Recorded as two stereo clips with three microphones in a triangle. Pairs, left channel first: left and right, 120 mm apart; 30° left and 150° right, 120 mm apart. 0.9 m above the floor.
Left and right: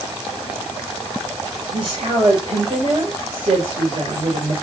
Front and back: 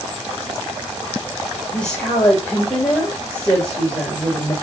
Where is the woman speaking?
50° right, 3.5 m.